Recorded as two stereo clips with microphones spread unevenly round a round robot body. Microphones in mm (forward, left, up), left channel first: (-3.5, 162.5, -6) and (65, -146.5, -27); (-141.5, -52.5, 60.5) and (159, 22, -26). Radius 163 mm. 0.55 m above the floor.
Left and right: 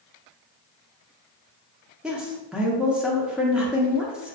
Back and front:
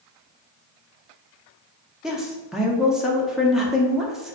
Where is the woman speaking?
5° right, 0.6 m.